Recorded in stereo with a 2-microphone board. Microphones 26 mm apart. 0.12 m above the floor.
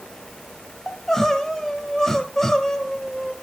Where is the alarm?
I don't hear an alarm.